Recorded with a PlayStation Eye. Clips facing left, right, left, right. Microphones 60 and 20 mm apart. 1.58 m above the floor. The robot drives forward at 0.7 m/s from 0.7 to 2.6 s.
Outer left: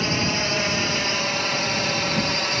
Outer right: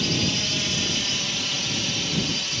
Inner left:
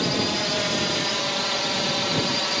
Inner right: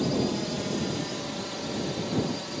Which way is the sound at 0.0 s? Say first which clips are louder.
Outer left 3 dB, inner left 4 dB; 40° left (ahead or behind).